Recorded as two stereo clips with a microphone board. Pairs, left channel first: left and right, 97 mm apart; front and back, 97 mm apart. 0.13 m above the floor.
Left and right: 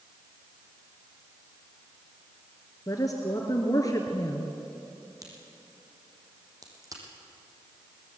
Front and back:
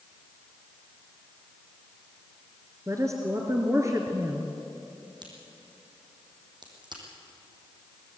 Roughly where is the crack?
Behind right.